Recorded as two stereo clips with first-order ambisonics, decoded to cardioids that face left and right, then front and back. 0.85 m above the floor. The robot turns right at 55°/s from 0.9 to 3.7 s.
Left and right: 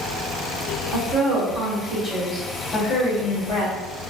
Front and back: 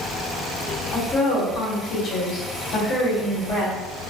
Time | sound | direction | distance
0.9 | a woman speaking | 80° right | 1.5 m